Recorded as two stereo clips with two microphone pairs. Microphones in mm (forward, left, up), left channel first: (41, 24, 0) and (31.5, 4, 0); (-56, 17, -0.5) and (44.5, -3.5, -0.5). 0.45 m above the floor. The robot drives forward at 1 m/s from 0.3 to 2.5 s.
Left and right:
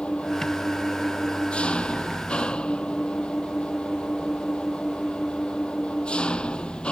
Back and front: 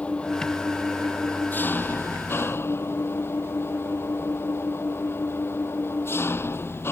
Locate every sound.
0.0 s an engine running: 90° left; by 6.9 s 100° left